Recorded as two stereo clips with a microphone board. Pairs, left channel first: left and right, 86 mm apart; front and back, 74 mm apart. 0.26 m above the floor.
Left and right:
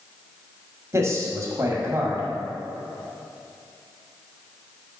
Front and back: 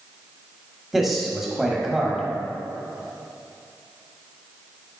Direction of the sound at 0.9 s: 95° right.